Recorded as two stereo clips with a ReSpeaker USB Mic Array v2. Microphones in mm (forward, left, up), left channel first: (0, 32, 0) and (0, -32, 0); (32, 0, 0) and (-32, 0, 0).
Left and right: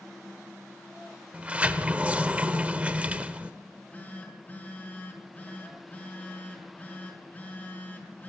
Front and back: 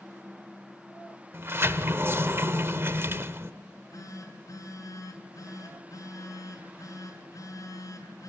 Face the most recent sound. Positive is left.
turn(degrees=20)